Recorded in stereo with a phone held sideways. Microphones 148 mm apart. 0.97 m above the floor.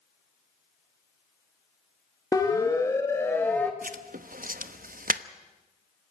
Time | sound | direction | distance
2.3 | a siren | 25° left (ahead or behind) | 2.5 m
3.8 | writing | 65° right (ahead or behind) | 0.9 m